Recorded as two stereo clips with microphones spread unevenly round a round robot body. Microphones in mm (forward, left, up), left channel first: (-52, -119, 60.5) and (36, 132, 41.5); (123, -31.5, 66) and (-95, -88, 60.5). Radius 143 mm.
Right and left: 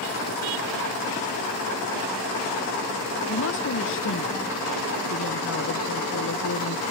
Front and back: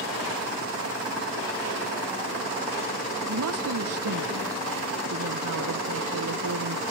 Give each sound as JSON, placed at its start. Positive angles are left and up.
{"t": 3.3, "sound": "a woman speaking", "azimuth_deg": -155}